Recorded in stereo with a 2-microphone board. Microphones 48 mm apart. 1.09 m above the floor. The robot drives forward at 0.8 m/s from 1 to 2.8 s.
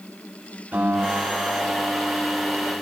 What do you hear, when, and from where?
0.7 s a guitar: 40° right (ahead or behind), 3.5 m; by 2.7 s 25° right (ahead or behind), 4.5 m